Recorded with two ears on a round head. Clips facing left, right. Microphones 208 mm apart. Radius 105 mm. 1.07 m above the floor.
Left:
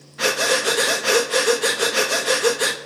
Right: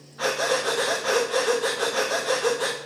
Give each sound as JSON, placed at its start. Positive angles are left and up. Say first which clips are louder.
{"t": 0.2, "sound": "breathing", "louder": "left 3 dB", "side_deg": 30, "distance_m": 1.2}